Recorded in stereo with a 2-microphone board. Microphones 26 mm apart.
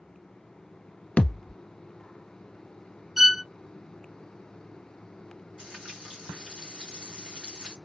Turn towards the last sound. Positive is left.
turn(degrees=-70)  # may be behind; listen again after turning